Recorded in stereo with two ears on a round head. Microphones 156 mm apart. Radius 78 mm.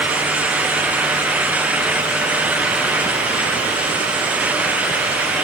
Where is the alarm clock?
No alarm clock in this recording.